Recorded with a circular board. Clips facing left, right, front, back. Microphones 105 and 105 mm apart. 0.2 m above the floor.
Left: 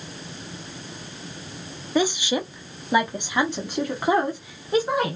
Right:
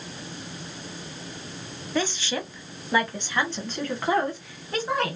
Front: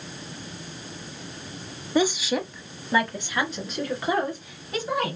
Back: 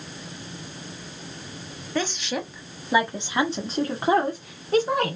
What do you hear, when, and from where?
1.9 s a woman speaking: 45° left, 1.0 m; by 5.2 s 165° left, 1.7 m